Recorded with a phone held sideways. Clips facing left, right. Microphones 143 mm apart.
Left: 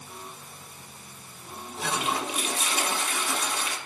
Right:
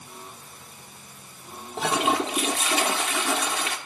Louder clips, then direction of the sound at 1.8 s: Right 6 dB; 85° right.